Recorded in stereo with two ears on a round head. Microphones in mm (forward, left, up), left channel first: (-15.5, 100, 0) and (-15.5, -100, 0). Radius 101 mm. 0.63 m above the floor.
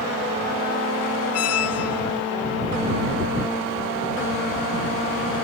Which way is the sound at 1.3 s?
75° left (ahead or behind).